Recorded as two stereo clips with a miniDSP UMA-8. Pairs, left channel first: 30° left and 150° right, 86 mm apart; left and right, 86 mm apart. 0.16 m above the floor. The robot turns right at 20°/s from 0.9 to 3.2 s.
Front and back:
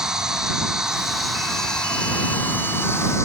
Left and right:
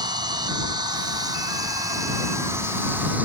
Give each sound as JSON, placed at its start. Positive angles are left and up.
{"t": 0.0, "sound": "an insect", "azimuth_deg": -70}